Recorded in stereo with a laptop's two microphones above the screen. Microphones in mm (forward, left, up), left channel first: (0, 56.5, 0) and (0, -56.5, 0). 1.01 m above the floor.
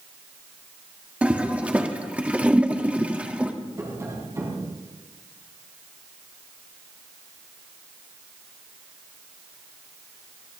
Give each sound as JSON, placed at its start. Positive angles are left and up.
{"t": 1.2, "sound": "a toilet flushing", "side_deg": -10, "distance_m": 1.7}
{"t": 3.8, "sound": "tapping", "side_deg": -25, "distance_m": 3.5}